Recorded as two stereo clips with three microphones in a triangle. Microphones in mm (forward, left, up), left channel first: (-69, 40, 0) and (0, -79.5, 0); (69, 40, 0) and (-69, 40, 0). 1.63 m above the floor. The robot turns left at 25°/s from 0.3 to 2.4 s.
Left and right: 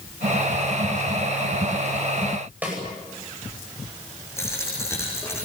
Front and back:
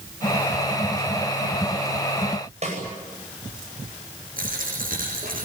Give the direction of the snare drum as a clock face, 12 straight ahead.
5 o'clock.